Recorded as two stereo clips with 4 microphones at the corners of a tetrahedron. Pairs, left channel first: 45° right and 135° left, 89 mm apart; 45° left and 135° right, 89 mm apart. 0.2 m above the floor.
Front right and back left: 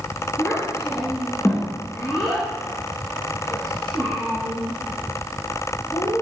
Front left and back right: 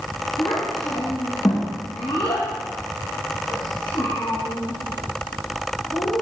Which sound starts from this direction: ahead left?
A child speaking, at 0.4 s.